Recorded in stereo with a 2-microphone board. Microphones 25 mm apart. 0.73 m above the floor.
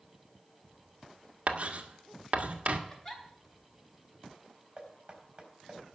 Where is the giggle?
20° left (ahead or behind), 3 m.